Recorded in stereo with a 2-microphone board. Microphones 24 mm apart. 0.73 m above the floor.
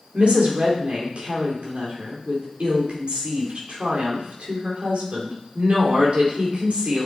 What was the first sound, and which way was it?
A woman speaking, 60° right (ahead or behind).